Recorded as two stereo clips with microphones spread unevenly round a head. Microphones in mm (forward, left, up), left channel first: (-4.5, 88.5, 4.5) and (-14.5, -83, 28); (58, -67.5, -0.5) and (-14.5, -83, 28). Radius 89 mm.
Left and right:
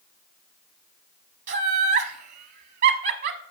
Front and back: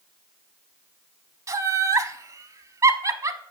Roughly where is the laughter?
Behind right.